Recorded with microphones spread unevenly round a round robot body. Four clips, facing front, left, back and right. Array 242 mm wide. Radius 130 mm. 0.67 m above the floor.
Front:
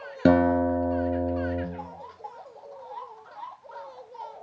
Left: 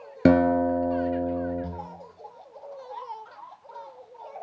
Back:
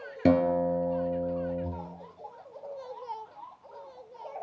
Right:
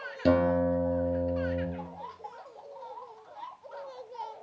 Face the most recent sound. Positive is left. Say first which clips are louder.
# left 5 dB, front 4 dB
turn(degrees=55)